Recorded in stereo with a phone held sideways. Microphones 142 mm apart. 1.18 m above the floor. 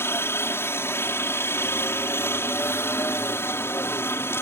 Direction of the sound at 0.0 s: 15° left (ahead or behind).